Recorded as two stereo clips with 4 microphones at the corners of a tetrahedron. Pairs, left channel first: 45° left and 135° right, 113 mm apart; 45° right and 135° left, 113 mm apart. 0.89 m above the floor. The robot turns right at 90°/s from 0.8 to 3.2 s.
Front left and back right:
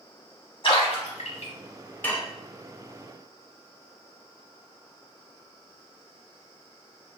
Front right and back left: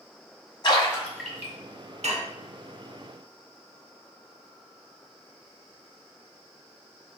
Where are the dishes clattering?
120° left, 0.5 m; by 2.3 s 140° left, 0.5 m.